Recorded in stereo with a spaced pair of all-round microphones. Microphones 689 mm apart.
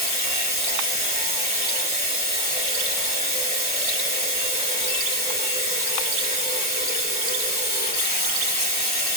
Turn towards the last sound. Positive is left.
turn(degrees=35)  # may be behind; listen again after turning